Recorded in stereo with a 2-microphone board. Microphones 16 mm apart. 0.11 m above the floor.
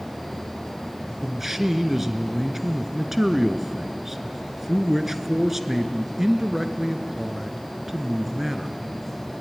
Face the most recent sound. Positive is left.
turn(degrees=-15)  # may be behind; listen again after turning